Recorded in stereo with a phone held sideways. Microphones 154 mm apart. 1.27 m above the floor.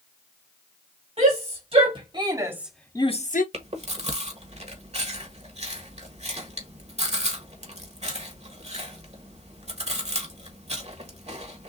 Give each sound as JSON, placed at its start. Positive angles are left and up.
{"t": 1.2, "sound": "a shout", "side_deg": -45, "distance_m": 2.5}
{"t": 3.5, "sound": "chewing", "side_deg": -45, "distance_m": 1.3}